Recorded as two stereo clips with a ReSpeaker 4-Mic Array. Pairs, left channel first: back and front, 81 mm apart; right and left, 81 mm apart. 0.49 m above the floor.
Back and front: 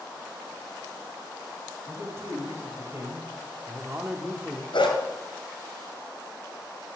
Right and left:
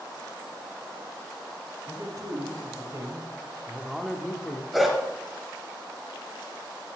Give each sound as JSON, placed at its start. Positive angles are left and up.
{"t": 1.9, "sound": "a man speaking", "azimuth_deg": 55, "distance_m": 2.5}
{"t": 4.7, "sound": "a dog barking", "azimuth_deg": 180, "distance_m": 1.6}